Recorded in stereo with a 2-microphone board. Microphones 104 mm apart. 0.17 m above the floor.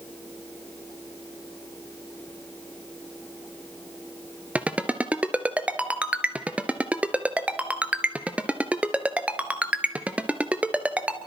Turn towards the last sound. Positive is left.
turn(degrees=-15)  # may be behind; listen again after turning